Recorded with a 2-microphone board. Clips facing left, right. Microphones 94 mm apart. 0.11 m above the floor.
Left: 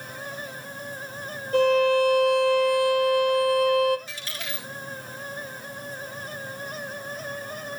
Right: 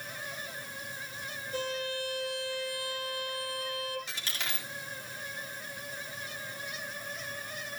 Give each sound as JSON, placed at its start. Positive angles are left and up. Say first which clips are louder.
{"t": 1.5, "sound": "a violin", "louder": "left 17 dB", "side_deg": 60, "distance_m": 1.6}
{"t": 4.1, "sound": "a dropped coin", "louder": "left 3 dB", "side_deg": -70, "distance_m": 4.0}